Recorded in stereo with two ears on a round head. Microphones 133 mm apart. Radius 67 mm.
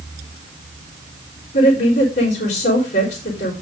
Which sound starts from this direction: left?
A woman speaking, at 1.5 s.